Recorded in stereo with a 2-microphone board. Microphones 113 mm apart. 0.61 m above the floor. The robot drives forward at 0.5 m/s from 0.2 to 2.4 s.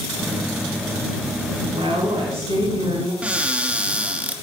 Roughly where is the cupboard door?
Centre.